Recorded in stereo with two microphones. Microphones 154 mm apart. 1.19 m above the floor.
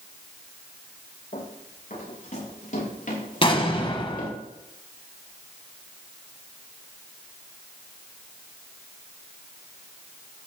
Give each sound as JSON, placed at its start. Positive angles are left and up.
{"t": 1.3, "sound": "running footsteps", "side_deg": 55, "distance_m": 7.0}
{"t": 3.4, "sound": "an explosion", "side_deg": 35, "distance_m": 1.3}